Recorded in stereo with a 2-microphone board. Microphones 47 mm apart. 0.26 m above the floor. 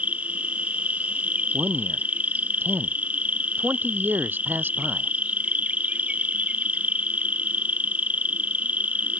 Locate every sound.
0.0 s an insect: 35° right (ahead or behind)
1.5 s a man speaking: 45° right (ahead or behind)